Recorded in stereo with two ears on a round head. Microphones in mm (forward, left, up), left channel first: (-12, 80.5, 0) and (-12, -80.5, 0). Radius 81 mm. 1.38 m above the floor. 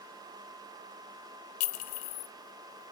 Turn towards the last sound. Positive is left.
turn(degrees=45)  # may be behind; listen again after turning